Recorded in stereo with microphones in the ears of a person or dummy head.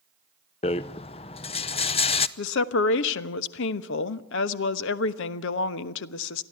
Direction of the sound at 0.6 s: 25° left (ahead or behind).